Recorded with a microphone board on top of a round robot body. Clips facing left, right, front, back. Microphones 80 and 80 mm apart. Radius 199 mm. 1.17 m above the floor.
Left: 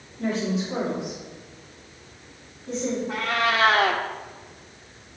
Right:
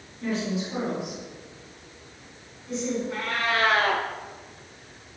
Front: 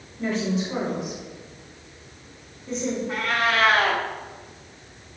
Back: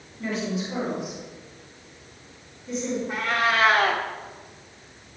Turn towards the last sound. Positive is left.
turn(degrees=95)